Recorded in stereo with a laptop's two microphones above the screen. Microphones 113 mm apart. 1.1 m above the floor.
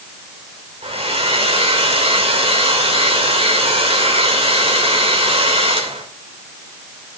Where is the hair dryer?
60° right (ahead or behind), 2.5 m.